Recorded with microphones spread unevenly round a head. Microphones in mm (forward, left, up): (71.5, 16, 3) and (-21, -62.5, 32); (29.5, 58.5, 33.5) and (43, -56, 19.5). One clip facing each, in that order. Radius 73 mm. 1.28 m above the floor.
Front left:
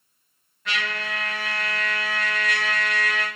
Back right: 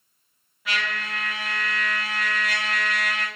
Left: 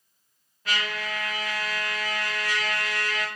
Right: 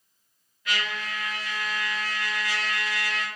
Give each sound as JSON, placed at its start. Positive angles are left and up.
{"t": 0.7, "sound": "a trumpet", "azimuth_deg": 150, "distance_m": 1.6}